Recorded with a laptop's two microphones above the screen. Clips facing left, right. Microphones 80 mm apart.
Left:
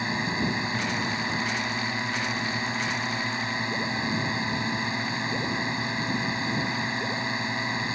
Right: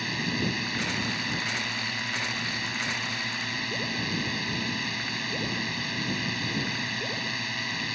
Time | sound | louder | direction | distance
0.0 | a drone | left 2 dB | 25° left (ahead or behind) | ?